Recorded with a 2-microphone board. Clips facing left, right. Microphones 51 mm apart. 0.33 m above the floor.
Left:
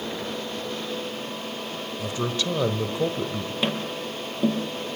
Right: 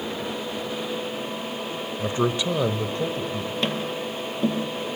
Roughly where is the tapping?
Centre.